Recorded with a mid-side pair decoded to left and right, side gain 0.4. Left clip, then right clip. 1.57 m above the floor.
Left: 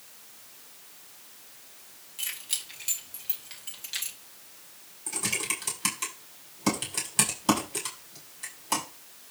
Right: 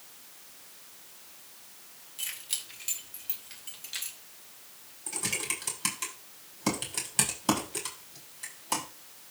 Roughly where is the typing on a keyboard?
Ahead.